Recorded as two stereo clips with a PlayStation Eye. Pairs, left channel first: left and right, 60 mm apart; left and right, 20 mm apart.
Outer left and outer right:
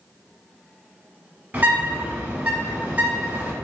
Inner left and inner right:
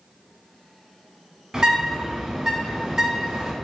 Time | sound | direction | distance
1.5 | a bird | 25° right (ahead or behind) | 1.7 m